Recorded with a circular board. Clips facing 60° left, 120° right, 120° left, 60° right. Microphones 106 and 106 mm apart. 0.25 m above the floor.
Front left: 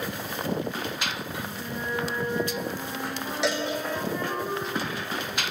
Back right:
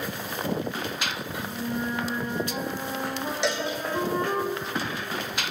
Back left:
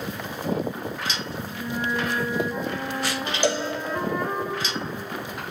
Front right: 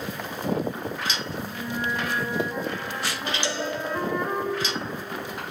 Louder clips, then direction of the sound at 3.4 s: Front left 1 dB, back left 8 dB; 150° left.